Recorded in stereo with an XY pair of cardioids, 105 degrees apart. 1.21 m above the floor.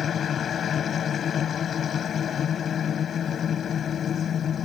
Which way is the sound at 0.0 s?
50° left.